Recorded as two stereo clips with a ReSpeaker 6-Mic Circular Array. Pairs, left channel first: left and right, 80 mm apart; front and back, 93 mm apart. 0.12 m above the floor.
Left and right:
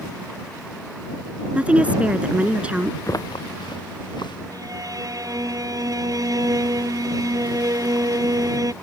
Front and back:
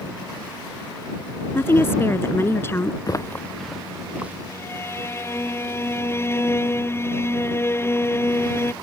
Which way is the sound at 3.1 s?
45° left.